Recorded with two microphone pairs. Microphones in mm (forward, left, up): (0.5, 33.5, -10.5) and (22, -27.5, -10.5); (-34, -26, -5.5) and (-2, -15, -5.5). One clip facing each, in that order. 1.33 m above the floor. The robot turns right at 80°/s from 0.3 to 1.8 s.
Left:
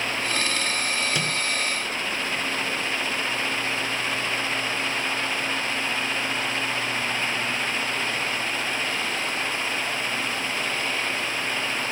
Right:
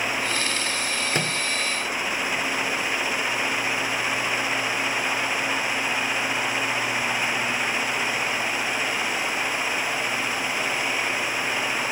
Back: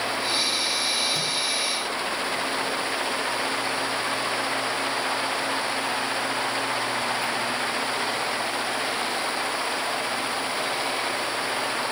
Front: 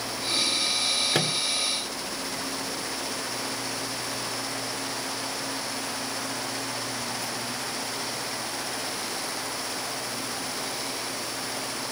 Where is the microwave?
20° right, 0.7 m; by 1.4 s straight ahead, 0.7 m.